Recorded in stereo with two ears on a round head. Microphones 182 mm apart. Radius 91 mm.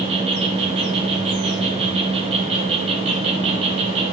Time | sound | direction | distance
0.0 | an insect | 30° right (ahead or behind) | 1.0 m